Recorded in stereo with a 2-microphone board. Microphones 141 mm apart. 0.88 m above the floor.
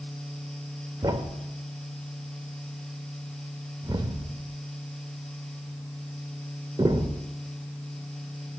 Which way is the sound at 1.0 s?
30° right (ahead or behind).